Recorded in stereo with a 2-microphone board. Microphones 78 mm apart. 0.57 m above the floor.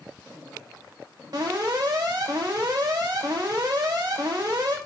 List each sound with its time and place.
1.3 s an alarm: 60° right (ahead or behind), 1.6 m